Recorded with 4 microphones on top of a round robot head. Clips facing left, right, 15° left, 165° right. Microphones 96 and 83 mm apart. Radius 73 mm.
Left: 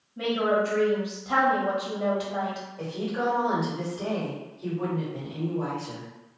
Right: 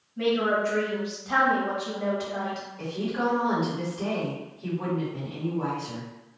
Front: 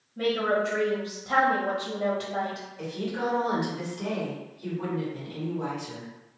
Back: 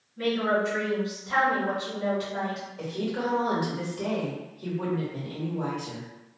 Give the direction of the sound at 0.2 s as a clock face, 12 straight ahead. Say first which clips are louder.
Even, even; 11 o'clock.